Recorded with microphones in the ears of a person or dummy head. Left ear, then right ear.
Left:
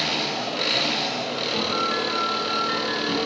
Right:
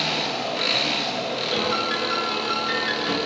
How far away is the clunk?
I don't hear a clunk.